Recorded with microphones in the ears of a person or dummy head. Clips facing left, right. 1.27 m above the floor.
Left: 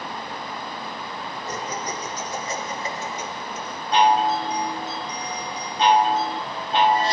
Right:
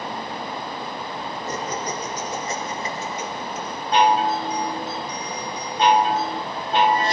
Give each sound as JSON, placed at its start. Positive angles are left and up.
{"t": 1.5, "sound": "laughter", "side_deg": -40, "distance_m": 6.0}
{"t": 3.9, "sound": "a chime", "side_deg": -45, "distance_m": 2.0}